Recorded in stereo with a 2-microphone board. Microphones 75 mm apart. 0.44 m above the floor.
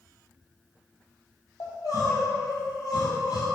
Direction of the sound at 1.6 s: 60° left (ahead or behind).